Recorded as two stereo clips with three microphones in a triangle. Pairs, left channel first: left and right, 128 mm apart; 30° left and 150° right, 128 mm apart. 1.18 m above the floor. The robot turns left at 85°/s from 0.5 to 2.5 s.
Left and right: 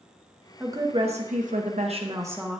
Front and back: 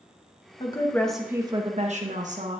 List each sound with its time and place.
0.6 s a woman speaking: 15° right, 1.0 m; by 2.6 s 175° right, 1.0 m